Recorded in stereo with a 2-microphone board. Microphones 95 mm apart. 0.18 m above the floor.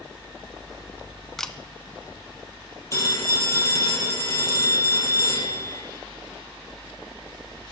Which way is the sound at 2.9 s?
30° left (ahead or behind).